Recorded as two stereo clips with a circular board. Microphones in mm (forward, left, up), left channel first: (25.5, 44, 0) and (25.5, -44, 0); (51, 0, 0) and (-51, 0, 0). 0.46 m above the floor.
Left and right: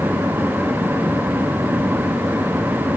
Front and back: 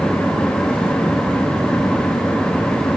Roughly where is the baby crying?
I don't hear a baby crying.